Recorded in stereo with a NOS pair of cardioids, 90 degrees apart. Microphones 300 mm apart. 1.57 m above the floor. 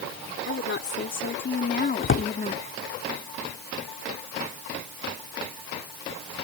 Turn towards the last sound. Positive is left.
turn(degrees=45)